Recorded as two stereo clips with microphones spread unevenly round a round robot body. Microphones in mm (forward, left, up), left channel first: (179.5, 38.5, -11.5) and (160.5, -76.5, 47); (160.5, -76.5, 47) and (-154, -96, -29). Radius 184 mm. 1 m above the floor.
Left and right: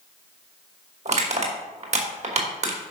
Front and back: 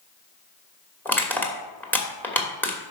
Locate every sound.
1.1 s crushing: 80° right, 2.5 m